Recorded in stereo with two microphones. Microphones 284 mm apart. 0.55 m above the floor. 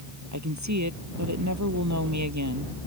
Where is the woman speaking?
75° right (ahead or behind).